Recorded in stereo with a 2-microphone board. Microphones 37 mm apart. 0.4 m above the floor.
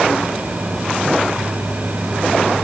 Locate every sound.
Only background noise.